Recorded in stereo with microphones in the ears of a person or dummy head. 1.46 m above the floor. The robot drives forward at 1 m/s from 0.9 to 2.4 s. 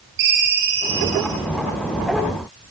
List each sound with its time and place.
0.2 s a ringtone: 60° right (ahead or behind), 9 m; by 1.4 s 65° right (ahead or behind), 9 m